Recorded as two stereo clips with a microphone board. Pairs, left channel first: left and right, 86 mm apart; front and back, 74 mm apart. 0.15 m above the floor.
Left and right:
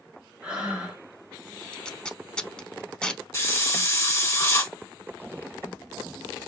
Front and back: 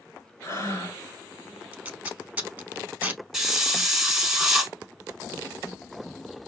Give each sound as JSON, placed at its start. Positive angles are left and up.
{"t": 0.4, "sound": "breathing", "azimuth_deg": -20, "distance_m": 2.0}
{"t": 1.7, "sound": "tape being pulled", "azimuth_deg": 150, "distance_m": 0.6}
{"t": 3.3, "sound": "a hiss", "azimuth_deg": 105, "distance_m": 1.1}